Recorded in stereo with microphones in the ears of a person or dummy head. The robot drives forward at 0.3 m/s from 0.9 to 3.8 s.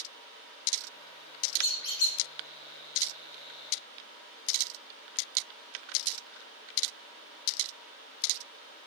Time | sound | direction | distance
1.6 | a squeak | 60° left (ahead or behind) | 1.7 m